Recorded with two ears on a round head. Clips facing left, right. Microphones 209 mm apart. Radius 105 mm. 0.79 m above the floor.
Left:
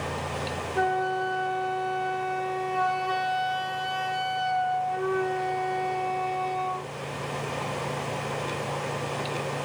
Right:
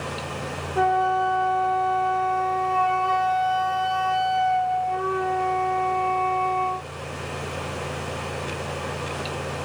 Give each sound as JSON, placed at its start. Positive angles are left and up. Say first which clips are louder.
{"t": 0.8, "sound": "a flute", "louder": "right 5 dB", "side_deg": 5, "distance_m": 1.5}